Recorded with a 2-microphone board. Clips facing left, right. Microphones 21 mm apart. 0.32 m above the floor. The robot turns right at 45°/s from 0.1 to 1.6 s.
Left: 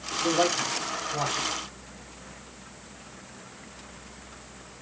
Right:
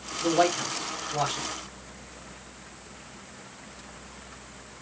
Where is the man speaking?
50° right (ahead or behind), 1.4 m; by 1.5 s 15° right (ahead or behind), 1.4 m.